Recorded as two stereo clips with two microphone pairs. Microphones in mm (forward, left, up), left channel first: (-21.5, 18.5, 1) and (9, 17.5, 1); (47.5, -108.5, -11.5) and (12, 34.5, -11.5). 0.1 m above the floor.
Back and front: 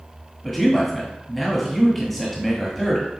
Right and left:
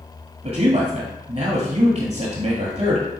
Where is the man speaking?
90° left, 1.5 m.